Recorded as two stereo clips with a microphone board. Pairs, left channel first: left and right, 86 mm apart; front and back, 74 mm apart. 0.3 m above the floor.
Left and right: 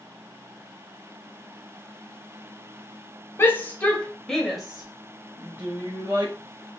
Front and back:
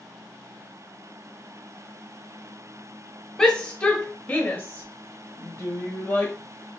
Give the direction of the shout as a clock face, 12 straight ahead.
10 o'clock.